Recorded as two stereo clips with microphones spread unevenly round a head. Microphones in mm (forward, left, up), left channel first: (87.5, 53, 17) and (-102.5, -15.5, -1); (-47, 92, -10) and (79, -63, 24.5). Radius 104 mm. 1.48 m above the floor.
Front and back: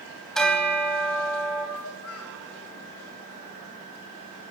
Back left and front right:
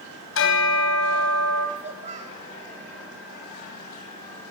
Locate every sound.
0.3 s a bell: 105° left, 4 m
1.8 s a child speaking: straight ahead, 4 m